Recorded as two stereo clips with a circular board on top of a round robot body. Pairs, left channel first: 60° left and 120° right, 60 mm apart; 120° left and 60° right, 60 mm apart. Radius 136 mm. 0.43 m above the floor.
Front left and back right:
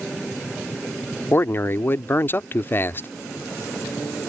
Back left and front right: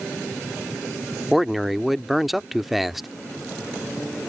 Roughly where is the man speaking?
Ahead left.